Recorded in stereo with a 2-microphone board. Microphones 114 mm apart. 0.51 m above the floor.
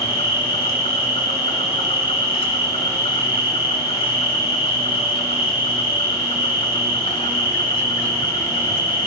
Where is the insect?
55° left (ahead or behind), 2 m.